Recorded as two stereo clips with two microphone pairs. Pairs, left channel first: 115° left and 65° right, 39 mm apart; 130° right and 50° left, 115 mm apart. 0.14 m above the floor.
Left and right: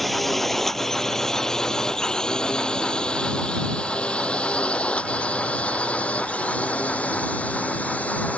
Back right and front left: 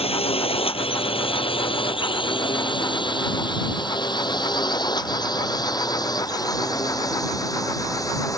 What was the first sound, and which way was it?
A drone, 155° right.